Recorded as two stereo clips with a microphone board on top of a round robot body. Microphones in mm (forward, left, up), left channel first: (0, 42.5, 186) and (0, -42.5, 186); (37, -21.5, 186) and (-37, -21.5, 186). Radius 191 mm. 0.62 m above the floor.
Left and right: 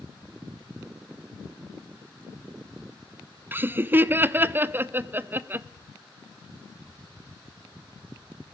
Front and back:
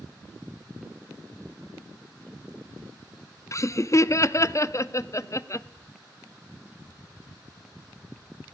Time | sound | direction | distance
3.5 | laughter | 30° right | 0.6 m